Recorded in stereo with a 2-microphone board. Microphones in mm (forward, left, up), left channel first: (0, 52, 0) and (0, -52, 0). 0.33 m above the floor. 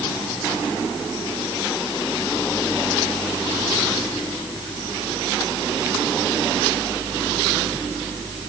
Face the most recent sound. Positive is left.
No sound to turn to.